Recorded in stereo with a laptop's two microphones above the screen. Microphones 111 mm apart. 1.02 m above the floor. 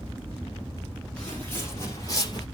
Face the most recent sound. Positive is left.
turn(degrees=40)  # may be behind; listen again after turning